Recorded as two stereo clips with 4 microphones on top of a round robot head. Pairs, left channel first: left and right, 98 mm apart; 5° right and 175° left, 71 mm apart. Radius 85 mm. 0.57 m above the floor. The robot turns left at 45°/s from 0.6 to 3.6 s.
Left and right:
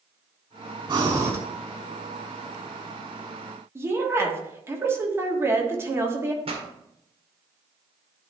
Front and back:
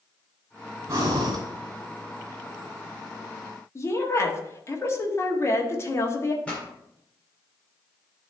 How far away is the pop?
About 1.7 m.